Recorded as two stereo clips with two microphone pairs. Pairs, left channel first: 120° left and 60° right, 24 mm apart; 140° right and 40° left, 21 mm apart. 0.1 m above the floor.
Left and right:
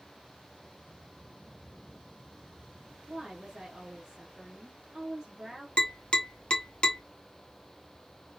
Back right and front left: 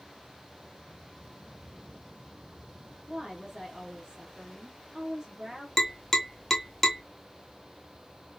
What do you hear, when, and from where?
3.1 s a woman speaking: 5° left, 1.6 m
5.8 s tapping: 145° left, 1.3 m